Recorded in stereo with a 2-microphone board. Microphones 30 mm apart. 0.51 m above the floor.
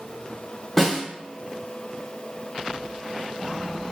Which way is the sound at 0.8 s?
5° left (ahead or behind).